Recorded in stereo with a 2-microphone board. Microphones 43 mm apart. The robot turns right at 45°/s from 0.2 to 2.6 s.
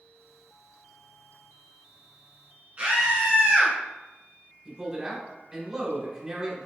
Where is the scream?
40° right (ahead or behind), 1.6 m.